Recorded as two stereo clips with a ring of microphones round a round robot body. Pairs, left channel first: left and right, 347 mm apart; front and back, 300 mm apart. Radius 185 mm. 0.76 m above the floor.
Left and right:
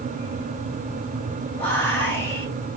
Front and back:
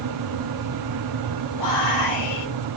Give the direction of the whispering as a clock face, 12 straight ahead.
12 o'clock.